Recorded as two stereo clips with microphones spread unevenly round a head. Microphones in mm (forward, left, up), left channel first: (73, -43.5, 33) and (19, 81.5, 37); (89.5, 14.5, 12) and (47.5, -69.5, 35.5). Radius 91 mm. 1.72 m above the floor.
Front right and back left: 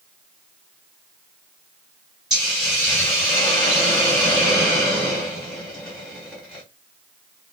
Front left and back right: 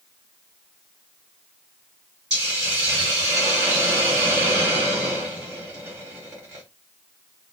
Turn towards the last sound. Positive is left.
turn(degrees=-165)